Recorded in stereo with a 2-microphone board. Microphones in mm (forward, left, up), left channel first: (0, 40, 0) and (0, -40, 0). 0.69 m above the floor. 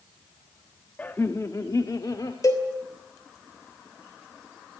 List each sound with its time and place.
1.0 s laughter: 20° left (ahead or behind), 0.7 m; by 2.3 s 55° left (ahead or behind), 1.6 m
2.4 s a cowbell: 45° left (ahead or behind), 3 m